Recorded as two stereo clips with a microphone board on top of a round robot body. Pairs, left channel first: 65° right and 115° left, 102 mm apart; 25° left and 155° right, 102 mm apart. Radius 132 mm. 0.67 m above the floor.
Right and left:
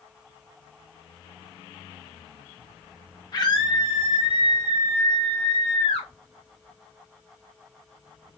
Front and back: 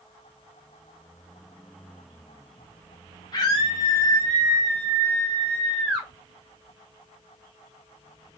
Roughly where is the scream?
Ahead.